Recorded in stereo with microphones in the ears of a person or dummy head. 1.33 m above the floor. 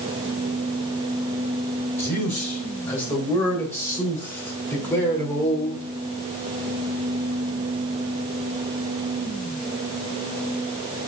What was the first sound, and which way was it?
A man speaking, 10° left (ahead or behind).